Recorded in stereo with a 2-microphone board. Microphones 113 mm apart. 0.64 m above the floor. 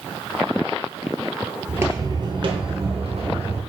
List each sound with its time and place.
1.7 s footsteps: 15° right (ahead or behind), 0.6 m; by 3.6 s 55° right (ahead or behind), 1.7 m